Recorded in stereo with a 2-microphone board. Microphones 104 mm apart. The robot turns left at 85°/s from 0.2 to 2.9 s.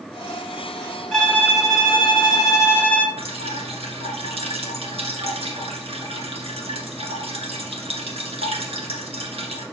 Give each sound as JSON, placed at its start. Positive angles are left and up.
{"t": 1.1, "sound": "a violin", "azimuth_deg": 175, "distance_m": 1.2}
{"t": 3.2, "sound": "dripping", "side_deg": -70, "distance_m": 1.7}